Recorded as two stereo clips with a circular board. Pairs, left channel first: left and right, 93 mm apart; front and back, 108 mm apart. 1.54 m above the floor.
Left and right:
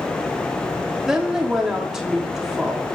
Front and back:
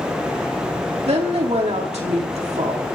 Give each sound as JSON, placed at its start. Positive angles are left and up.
{"t": 1.1, "sound": "a woman speaking", "azimuth_deg": -175, "distance_m": 3.0}